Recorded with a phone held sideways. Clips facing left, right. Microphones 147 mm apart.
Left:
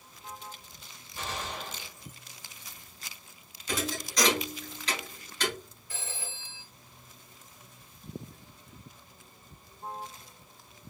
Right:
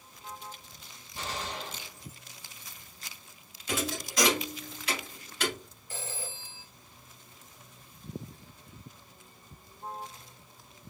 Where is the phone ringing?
35° right (ahead or behind), 1.1 m.